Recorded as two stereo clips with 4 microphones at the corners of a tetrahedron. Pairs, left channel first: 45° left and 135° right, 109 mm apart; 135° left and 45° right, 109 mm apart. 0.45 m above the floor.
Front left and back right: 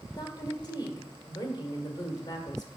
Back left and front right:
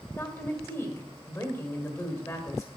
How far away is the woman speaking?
About 1.8 m.